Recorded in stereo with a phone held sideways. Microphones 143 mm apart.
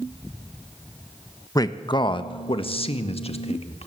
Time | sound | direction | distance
1.6 | a man speaking | 25° left (ahead or behind) | 1.0 m